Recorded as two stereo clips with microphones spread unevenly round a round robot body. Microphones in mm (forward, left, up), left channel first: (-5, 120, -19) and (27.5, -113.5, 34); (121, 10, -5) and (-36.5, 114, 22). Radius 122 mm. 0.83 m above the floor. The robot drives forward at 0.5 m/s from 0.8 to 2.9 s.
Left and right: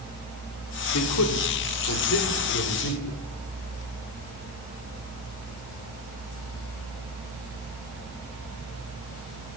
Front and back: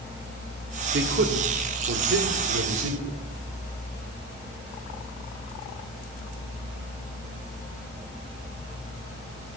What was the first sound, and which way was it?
A man speaking, 115° left.